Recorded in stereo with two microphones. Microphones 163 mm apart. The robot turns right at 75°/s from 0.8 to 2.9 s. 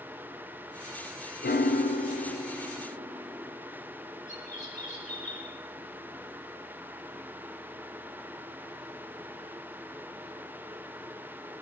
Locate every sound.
1.4 s a piano: 85° left, 0.6 m; by 3.6 s 165° right, 0.6 m
4.3 s a bird: 50° left (ahead or behind), 7 m